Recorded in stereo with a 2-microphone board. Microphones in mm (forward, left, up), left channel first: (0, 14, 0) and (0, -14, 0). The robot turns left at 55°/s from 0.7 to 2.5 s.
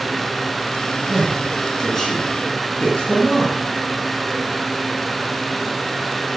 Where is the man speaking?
30° right (ahead or behind), 4 m; by 3.6 s 45° left (ahead or behind), 4 m.